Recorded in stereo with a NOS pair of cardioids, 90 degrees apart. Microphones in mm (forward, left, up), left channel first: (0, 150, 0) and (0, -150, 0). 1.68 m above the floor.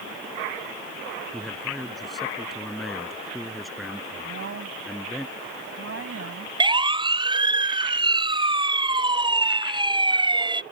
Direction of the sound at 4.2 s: 50° right.